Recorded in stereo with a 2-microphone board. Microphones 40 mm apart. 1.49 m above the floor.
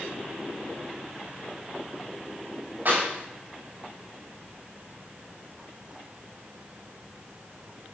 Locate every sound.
2.9 s a clap: 55° right (ahead or behind), 10 m